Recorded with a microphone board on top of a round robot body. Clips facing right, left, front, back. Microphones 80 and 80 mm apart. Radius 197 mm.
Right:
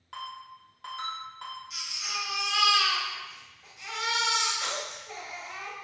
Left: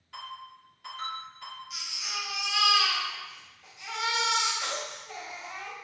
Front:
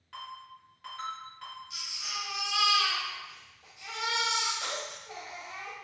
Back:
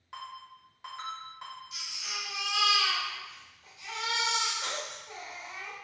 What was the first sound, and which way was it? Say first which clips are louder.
A ringtone: right 2 dB, even; 110° right.